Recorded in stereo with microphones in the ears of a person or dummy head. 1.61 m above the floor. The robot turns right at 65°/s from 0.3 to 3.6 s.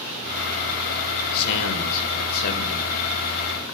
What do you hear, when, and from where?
1.3 s a man speaking: 60° left, 2 m; by 2.9 s 160° left, 2 m